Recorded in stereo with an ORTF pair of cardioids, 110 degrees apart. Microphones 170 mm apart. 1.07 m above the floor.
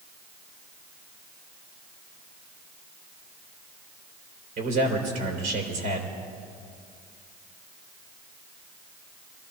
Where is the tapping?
No tapping in this recording.